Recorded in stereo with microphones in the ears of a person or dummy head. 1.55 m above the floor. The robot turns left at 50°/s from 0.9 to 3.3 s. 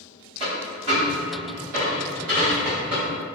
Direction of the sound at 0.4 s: 30° right (ahead or behind).